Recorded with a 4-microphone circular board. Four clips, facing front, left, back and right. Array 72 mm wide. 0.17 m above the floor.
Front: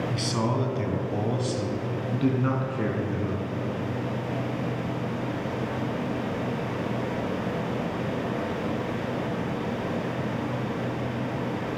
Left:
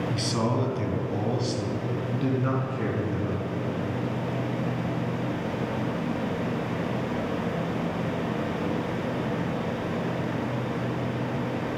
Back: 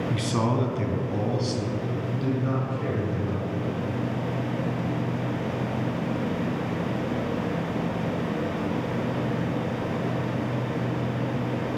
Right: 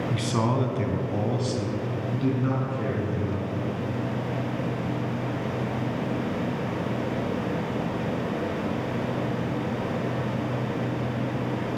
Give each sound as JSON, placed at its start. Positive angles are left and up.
{"t": 0.1, "sound": "a man speaking", "azimuth_deg": -135, "distance_m": 1.2}